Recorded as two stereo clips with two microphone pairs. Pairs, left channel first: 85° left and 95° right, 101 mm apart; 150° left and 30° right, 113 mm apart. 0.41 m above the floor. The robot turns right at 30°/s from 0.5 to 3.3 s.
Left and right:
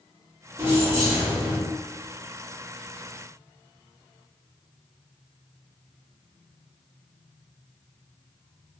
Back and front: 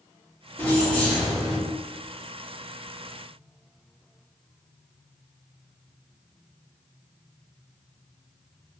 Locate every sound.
0.6 s keys jangling: 150° right, 0.8 m; by 1.6 s 120° right, 0.8 m